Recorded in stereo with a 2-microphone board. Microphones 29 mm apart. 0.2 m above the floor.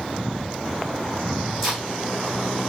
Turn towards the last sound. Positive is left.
turn(degrees=-5)  # may be behind; listen again after turning